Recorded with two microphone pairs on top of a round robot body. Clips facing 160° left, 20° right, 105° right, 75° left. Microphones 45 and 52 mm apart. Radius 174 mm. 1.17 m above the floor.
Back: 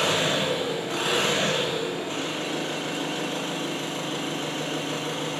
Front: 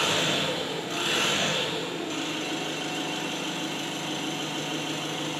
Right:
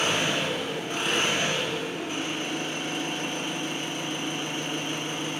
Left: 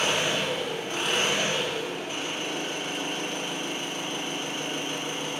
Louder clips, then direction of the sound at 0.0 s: Back 2 dB, even; 175° right.